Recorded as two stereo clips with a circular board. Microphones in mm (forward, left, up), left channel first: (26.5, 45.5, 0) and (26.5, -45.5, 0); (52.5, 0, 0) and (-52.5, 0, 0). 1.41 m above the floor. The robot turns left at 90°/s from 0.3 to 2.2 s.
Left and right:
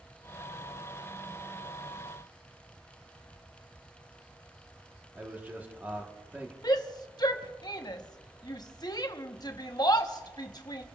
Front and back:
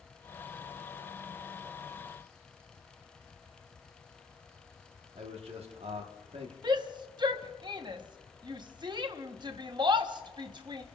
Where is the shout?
135° left, 1.0 m.